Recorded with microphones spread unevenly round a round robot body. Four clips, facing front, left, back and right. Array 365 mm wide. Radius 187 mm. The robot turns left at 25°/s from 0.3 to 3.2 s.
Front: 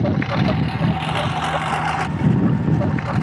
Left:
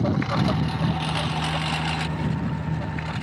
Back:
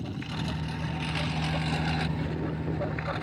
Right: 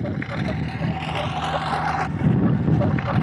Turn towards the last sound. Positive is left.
turn(degrees=-50)